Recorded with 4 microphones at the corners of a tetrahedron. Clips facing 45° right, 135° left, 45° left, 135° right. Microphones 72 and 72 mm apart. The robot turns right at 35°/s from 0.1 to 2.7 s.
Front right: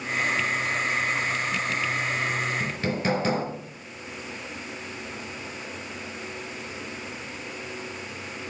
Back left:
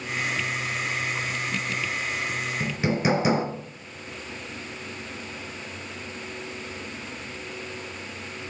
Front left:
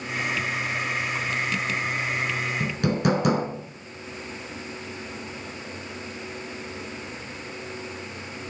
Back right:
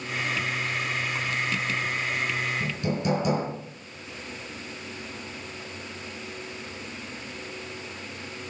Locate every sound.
2.6 s hammering: 60° left, 3.5 m; by 3.5 s 65° left, 3.5 m